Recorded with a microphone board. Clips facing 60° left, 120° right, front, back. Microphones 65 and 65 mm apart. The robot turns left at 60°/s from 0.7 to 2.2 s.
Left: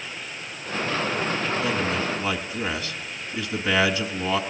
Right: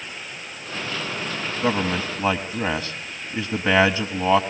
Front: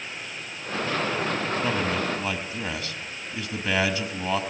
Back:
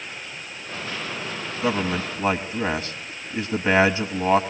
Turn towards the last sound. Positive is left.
turn(degrees=-145)